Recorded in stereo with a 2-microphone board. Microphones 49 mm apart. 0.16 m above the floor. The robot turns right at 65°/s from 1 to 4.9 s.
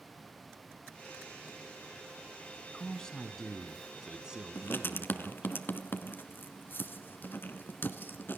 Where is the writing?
50° left (ahead or behind), 1.1 m; by 8.4 s 45° left (ahead or behind), 1.1 m.